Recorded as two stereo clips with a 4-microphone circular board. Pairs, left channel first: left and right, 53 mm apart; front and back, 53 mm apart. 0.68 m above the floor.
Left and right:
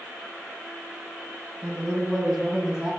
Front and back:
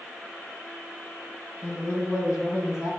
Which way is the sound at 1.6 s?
20° right.